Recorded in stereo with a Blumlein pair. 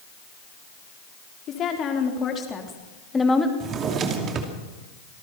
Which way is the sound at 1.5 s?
30° left.